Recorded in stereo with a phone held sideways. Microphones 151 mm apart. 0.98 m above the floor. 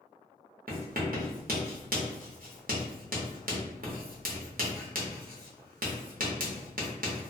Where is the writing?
70° right (ahead or behind), 0.7 m.